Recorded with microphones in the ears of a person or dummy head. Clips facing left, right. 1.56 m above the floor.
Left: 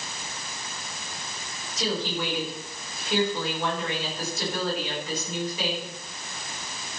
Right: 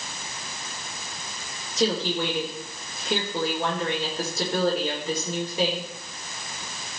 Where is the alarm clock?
No alarm clock in this recording.